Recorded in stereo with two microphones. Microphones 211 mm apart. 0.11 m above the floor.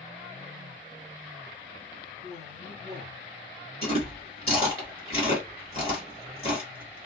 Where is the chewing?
30° left (ahead or behind), 1.7 m.